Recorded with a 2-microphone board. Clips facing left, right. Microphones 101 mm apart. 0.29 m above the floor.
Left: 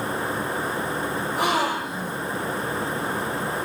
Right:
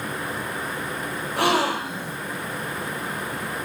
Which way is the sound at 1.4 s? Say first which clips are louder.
Right 3 dB; 75° right (ahead or behind).